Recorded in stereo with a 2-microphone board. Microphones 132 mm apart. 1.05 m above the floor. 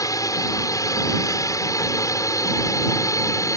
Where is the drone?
25° left (ahead or behind).